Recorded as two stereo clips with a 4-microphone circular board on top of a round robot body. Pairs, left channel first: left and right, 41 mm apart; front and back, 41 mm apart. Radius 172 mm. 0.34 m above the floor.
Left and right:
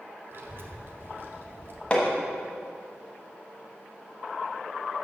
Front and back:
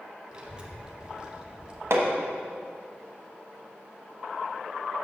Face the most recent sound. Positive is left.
turn(degrees=155)